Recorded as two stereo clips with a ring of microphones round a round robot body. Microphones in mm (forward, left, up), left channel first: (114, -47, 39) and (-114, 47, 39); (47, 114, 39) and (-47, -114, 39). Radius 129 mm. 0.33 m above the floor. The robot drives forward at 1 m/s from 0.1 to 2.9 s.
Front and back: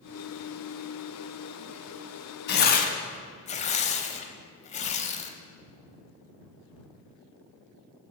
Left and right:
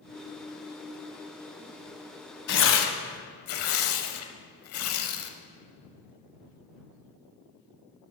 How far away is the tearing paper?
About 1.1 m.